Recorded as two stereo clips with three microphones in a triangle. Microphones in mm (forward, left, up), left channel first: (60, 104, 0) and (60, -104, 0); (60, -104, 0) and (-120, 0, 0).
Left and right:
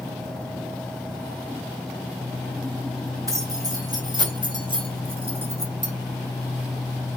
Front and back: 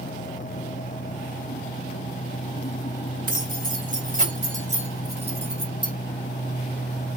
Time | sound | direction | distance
3.3 | keys jangling | 165° right | 3.5 m